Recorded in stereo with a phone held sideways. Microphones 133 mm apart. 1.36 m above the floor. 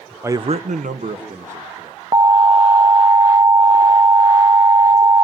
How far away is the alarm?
About 0.7 m.